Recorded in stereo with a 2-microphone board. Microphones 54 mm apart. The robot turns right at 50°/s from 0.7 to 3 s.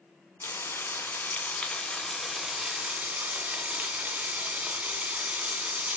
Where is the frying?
95° left, 1.7 m; by 6.0 s 150° right, 1.7 m.